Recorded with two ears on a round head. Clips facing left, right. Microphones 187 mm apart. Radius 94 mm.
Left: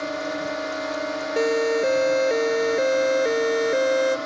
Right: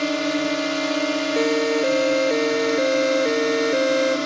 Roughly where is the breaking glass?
I don't hear breaking glass.